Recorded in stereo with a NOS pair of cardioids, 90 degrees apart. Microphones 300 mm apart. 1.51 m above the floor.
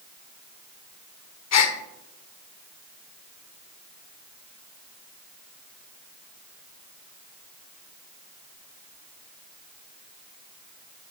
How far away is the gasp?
About 0.8 m.